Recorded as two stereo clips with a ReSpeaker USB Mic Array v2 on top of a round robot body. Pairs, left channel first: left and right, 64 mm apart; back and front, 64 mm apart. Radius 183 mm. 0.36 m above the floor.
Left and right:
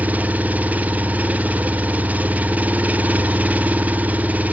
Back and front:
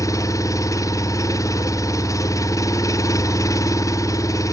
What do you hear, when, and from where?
0.0 s an engine running: 155° right, 1.2 m